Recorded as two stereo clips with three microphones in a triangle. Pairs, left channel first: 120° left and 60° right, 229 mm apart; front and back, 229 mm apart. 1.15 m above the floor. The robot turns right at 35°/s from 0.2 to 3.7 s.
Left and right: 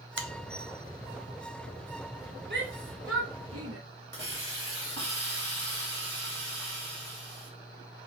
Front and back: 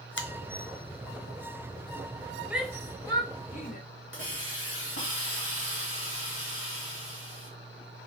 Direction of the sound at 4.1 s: 25° right.